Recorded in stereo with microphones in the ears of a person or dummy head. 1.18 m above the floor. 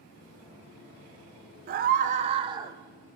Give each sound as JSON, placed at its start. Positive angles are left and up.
{"t": 1.7, "sound": "a scream", "side_deg": -50, "distance_m": 0.7}